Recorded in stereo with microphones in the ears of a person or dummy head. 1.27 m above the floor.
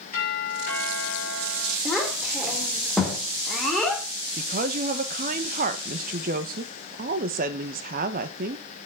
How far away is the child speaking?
About 3 m.